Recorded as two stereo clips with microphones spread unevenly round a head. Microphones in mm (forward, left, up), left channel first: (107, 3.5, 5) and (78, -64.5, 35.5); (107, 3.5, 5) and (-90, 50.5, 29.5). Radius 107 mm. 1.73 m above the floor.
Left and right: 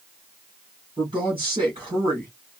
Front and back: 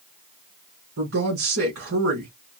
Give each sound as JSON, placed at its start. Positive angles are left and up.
{"t": 1.0, "sound": "a woman speaking", "azimuth_deg": -170, "distance_m": 3.5}